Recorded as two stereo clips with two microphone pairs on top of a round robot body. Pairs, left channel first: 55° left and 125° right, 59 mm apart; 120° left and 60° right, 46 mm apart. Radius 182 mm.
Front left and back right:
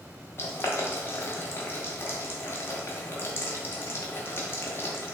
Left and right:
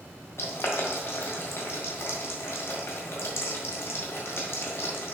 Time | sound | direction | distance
0.4 | boiling | 105° left | 0.9 m